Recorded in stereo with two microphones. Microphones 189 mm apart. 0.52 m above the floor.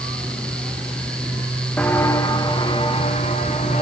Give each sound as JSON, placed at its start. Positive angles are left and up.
{"t": 1.8, "sound": "footsteps", "side_deg": 5, "distance_m": 2.0}